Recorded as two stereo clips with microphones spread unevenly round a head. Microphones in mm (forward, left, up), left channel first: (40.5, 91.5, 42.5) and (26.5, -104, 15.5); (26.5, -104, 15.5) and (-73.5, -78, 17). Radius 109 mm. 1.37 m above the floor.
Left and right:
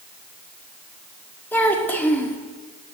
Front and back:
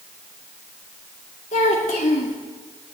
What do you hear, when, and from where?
1.5 s a child speaking: 5° left, 2.0 m